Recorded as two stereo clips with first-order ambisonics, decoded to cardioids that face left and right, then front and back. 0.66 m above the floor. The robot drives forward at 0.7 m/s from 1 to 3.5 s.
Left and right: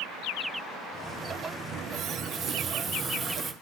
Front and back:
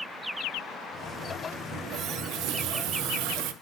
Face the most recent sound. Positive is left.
turn(degrees=-160)